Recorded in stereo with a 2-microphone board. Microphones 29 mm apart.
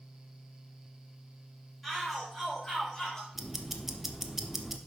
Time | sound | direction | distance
1.8 | a shout | centre (ahead or behind) | 4.5 m
3.4 | ticking | 10° right (ahead or behind) | 0.9 m